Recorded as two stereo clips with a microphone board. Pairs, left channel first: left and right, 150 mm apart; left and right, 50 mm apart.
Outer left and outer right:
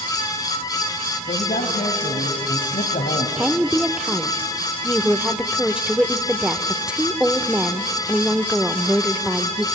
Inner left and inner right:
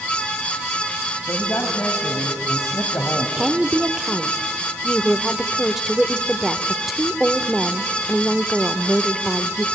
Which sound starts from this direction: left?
A man speaking, at 1.2 s.